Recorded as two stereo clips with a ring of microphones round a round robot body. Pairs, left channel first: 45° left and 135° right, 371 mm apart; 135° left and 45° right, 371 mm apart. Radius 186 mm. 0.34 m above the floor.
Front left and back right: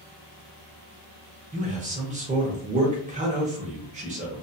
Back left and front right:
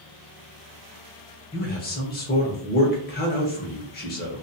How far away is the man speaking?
About 0.9 m.